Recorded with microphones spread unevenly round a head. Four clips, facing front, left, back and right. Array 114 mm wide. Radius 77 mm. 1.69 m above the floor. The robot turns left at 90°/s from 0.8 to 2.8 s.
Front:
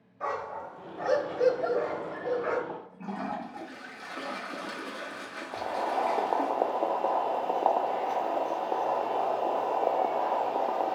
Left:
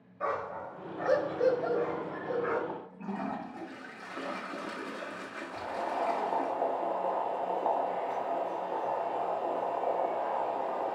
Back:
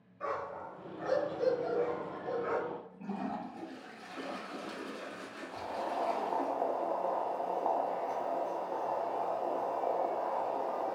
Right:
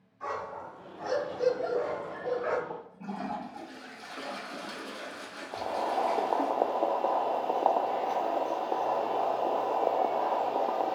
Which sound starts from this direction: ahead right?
Boiling, at 5.5 s.